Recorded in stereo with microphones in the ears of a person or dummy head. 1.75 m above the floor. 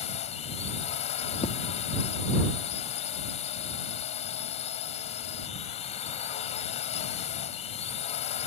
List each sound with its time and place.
0.0 s a drone: 40° left (ahead or behind)
1.4 s tapping: 40° left (ahead or behind)